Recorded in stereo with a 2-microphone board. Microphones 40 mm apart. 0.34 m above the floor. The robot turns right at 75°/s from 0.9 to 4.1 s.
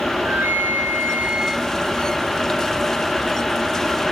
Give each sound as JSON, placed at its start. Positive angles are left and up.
{"t": 0.2, "sound": "a flute", "azimuth_deg": -60, "distance_m": 0.6}